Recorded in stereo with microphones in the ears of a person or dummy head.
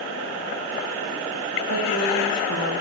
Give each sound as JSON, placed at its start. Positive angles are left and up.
{"t": 1.7, "sound": "a woman speaking", "side_deg": -85, "distance_m": 1.5}